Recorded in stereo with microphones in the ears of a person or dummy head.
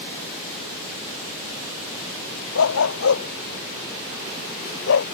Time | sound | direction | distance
2.5 | a dog barking | 70° left (ahead or behind) | ?